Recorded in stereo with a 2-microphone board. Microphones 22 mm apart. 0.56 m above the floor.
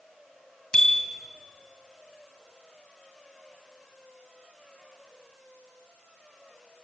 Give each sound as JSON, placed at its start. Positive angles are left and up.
{"t": 0.7, "sound": "a bicycle bell", "side_deg": 45, "distance_m": 2.5}